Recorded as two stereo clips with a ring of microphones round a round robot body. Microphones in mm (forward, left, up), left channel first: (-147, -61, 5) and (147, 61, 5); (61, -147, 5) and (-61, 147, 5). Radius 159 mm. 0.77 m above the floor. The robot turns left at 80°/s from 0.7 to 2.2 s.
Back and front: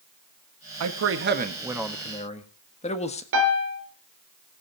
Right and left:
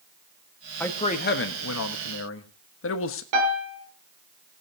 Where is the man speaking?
15° left, 1.3 m; by 3.2 s 95° right, 1.3 m.